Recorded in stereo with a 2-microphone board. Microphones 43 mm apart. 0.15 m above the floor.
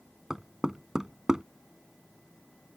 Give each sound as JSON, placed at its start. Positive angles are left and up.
{"t": 0.3, "sound": "knocking", "side_deg": -15}